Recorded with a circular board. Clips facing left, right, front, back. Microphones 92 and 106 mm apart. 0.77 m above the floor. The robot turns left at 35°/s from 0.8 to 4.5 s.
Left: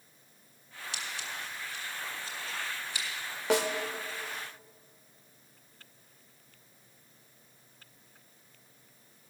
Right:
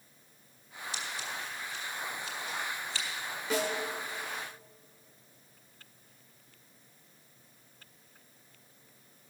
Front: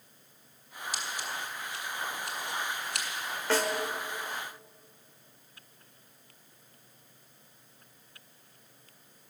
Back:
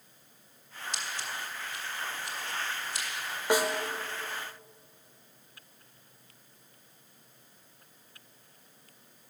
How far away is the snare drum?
About 1.0 m.